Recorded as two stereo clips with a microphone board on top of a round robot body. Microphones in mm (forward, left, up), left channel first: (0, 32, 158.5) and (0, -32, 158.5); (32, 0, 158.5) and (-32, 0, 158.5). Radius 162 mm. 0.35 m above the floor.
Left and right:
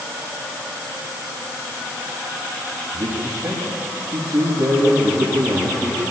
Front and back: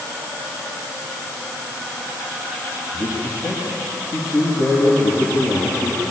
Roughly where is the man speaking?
Ahead right.